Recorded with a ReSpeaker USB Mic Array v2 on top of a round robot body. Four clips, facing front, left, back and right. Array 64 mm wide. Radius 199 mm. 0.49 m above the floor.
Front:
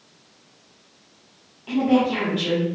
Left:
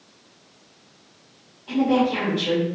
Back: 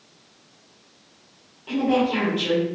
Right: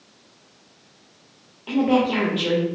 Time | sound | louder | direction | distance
1.7 | a woman speaking | right 1 dB, front 2 dB | 85° right | 1.8 m